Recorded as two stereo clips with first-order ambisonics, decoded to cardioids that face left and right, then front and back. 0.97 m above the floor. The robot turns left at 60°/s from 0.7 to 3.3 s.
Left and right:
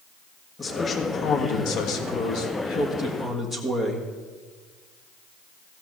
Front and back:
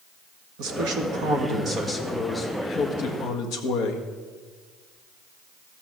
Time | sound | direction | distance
0.6 | a man speaking | 170° left | 1.6 m